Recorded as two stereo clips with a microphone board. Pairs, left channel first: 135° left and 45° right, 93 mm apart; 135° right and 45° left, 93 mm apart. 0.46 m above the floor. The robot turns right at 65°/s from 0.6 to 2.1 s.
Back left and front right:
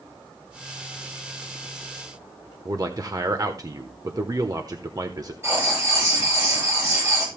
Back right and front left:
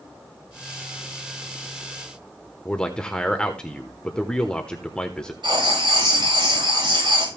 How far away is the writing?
About 5.5 m.